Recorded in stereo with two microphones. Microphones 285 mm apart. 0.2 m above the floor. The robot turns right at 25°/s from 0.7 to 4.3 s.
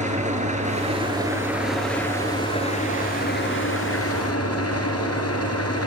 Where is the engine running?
25° right, 2.5 m; by 5.9 s 65° left, 2.5 m.